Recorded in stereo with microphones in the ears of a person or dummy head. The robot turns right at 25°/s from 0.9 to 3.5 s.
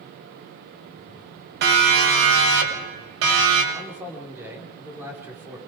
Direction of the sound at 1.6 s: 60° right (ahead or behind).